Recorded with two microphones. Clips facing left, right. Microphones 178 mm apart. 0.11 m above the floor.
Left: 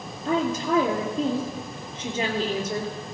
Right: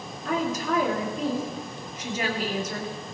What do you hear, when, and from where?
0.2 s a woman speaking: 30° left (ahead or behind), 3 m